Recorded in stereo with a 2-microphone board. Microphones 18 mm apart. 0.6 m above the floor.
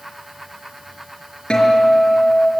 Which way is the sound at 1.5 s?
70° left (ahead or behind).